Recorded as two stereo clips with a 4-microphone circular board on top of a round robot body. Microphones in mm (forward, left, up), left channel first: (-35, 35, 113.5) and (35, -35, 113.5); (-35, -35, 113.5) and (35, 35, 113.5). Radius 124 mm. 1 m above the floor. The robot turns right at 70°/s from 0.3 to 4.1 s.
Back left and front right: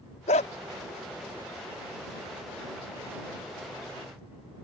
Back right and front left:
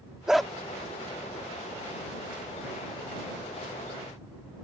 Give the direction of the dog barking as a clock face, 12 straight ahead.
8 o'clock.